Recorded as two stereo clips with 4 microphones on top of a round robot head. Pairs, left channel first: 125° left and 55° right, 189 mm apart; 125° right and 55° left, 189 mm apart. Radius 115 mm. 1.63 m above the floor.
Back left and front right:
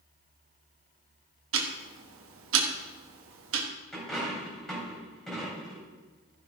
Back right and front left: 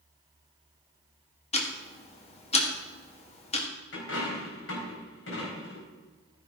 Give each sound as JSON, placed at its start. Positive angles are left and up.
{"t": 1.5, "sound": "ticking", "azimuth_deg": -65, "distance_m": 1.6}
{"t": 3.9, "sound": "a dropped coin", "azimuth_deg": -150, "distance_m": 4.0}